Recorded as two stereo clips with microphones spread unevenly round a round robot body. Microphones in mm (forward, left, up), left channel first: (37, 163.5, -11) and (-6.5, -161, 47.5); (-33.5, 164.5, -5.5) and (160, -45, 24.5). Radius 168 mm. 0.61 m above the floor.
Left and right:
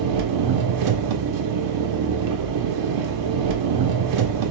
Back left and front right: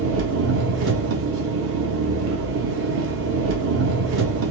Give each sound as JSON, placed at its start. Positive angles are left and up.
{"t": 0.0, "sound": "an engine running", "azimuth_deg": -85, "distance_m": 0.7}